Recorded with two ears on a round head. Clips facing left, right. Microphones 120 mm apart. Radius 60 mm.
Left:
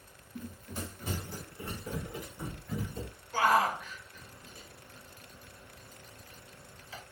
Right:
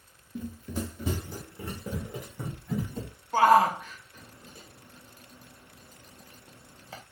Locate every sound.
0.3 s running footsteps: 60° right (ahead or behind), 1.1 m; by 3.1 s 45° right (ahead or behind), 3 m
3.3 s a shout: 30° right (ahead or behind), 0.6 m